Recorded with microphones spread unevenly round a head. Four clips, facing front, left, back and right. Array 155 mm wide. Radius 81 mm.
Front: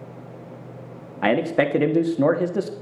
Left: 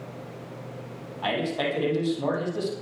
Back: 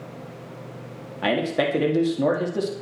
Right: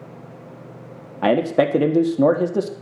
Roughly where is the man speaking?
Right.